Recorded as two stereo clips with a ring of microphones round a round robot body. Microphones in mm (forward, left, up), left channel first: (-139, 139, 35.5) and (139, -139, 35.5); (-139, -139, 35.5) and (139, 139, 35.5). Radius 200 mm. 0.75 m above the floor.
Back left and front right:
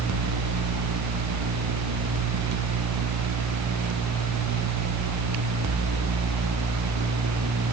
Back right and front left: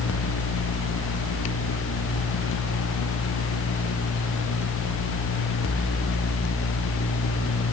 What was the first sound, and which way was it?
Only background noise.